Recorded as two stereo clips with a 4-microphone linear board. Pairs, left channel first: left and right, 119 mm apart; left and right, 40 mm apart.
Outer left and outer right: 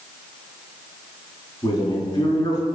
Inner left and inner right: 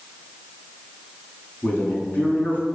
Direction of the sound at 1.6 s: 35° left (ahead or behind).